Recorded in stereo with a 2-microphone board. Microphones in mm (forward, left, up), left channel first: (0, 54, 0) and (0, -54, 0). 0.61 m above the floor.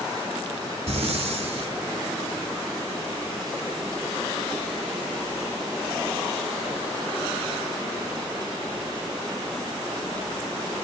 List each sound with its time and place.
0.9 s breathing: 65° right (ahead or behind), 0.7 m